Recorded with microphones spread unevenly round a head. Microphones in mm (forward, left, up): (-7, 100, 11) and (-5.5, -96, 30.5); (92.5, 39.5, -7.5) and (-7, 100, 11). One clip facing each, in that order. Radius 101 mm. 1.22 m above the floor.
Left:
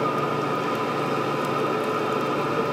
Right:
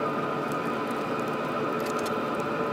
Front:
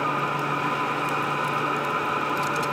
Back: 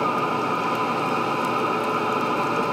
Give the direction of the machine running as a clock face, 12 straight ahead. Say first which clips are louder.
Left 4 dB, back 3 dB; 8 o'clock.